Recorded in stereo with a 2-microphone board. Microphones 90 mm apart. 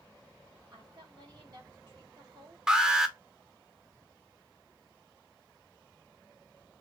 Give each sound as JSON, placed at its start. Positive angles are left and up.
{"t": 0.7, "sound": "a woman speaking", "side_deg": -45, "distance_m": 3.0}
{"t": 2.7, "sound": "an alarm", "side_deg": -10, "distance_m": 0.8}